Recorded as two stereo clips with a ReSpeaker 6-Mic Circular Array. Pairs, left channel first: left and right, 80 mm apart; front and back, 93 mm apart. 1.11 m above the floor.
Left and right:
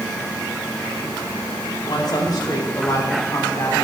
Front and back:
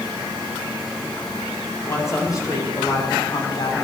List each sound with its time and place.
1.8 s a woman speaking: 60° left, 4.5 m; by 3.8 s 25° left, 3 m